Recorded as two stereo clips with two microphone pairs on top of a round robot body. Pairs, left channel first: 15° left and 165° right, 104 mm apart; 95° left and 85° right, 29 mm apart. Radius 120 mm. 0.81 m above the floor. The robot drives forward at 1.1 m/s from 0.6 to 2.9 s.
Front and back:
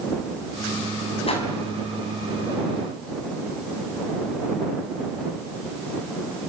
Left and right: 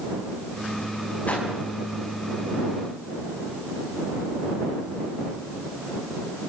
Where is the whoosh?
50° left, 5 m.